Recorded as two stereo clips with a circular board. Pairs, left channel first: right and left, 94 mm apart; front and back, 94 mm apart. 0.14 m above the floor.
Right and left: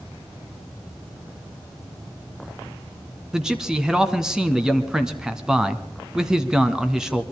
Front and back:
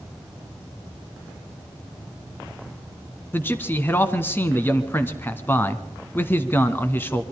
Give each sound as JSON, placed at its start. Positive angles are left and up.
{"t": 3.3, "sound": "a man speaking", "azimuth_deg": 15, "distance_m": 1.3}